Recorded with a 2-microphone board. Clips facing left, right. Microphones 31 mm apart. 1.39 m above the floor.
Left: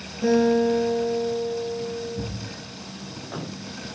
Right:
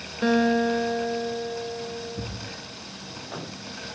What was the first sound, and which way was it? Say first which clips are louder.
A guitar: left 2 dB; 50° right (ahead or behind).